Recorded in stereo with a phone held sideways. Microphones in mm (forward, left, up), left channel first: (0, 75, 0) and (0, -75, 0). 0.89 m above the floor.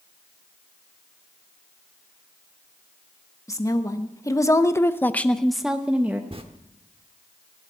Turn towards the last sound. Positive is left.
turn(degrees=-40)  # may be behind; listen again after turning